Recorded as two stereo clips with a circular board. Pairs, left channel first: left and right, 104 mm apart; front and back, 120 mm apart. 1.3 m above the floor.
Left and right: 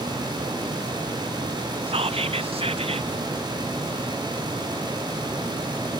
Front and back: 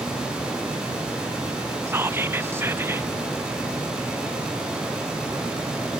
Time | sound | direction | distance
1.9 | whispering | 110° right | ?